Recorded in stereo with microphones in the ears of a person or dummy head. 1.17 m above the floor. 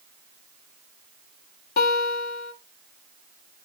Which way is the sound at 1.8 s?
65° left (ahead or behind).